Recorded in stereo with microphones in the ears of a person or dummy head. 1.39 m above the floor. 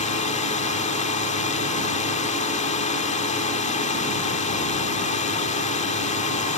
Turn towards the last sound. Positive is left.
turn(degrees=40)  # may be behind; listen again after turning